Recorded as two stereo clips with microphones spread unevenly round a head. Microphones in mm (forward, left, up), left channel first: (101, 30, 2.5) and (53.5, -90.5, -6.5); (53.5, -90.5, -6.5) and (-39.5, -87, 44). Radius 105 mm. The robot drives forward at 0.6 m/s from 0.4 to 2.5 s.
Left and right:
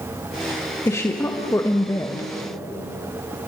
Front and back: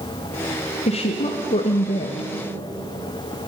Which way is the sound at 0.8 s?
Straight ahead.